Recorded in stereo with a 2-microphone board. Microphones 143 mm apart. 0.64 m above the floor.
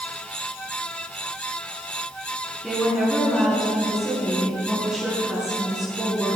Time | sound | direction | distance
2.6 | a woman speaking | 5° right (ahead or behind) | 5.5 m